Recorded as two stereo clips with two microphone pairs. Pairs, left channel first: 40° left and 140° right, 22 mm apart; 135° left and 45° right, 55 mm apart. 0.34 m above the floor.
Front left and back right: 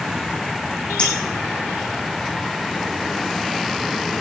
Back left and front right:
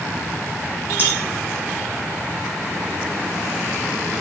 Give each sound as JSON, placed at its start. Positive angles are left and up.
{"t": 1.0, "sound": "a clink", "azimuth_deg": 10, "distance_m": 6.5}